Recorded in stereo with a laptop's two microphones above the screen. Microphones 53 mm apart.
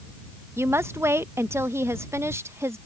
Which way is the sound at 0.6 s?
50° right (ahead or behind).